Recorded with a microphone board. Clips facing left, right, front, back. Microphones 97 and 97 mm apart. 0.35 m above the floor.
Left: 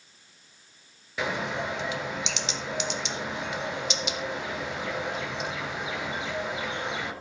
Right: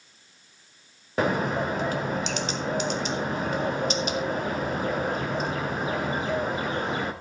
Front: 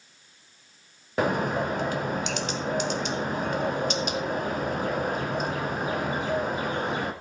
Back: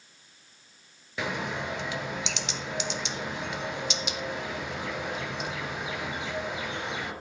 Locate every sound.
1.2 s a bird: 45° right, 1.0 m